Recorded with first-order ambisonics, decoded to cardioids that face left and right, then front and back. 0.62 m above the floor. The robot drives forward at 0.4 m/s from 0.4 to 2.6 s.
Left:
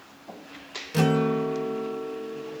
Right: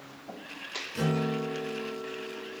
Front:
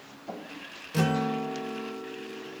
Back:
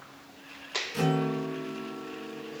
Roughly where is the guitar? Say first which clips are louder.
Left 8 dB, front 3 dB; ahead left.